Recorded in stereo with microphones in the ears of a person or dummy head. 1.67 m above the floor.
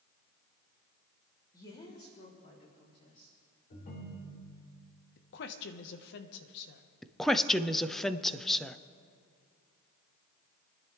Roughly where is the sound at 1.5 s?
Centre.